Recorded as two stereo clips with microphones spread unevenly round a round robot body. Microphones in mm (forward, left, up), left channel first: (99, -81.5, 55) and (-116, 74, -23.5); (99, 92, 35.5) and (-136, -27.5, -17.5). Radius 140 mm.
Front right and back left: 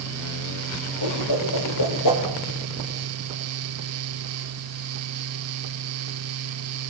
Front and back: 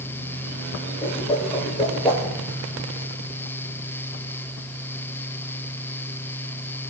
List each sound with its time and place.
1.0 s a whoosh: 50° right, 6.5 m